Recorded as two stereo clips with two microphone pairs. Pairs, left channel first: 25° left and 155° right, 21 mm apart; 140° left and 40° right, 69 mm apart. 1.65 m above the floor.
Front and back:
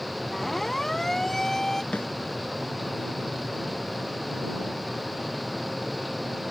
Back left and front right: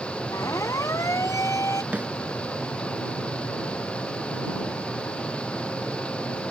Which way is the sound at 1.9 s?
30° left.